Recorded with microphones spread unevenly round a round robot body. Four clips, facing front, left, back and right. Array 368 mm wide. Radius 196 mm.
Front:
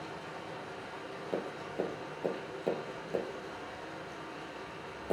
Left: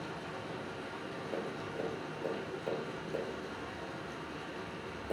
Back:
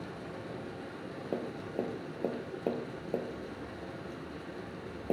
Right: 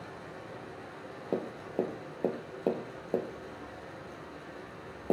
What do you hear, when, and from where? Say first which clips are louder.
0.0 s running water: left 3 dB, back 1 dB; 150° left, 1.7 m
1.3 s tapping: right 7 dB, even; 100° right, 2 m